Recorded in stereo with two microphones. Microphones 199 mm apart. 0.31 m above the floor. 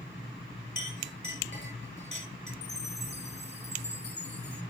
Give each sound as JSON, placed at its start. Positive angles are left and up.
{"t": 0.8, "sound": "a clink", "side_deg": 65, "distance_m": 5.0}
{"t": 2.6, "sound": "a chime", "side_deg": 60, "distance_m": 1.7}